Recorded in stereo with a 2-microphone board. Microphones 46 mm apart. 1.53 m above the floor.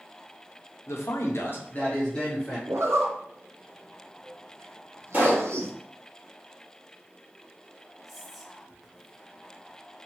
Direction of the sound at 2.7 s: 70° right (ahead or behind).